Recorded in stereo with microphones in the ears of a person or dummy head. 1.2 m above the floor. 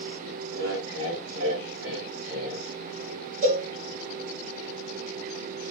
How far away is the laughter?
About 2.5 m.